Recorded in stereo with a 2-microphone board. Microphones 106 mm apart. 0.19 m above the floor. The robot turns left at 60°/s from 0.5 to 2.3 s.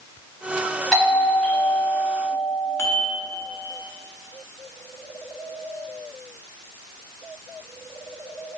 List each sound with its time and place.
0.9 s a doorbell: 5° left (ahead or behind), 1.4 m; by 2.7 s 20° right (ahead or behind), 1.4 m
2.8 s dishes clattering: 30° left (ahead or behind), 1.3 m